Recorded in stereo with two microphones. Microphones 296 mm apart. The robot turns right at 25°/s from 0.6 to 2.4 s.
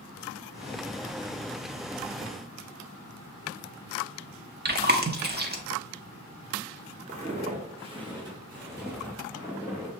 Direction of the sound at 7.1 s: 25° right (ahead or behind).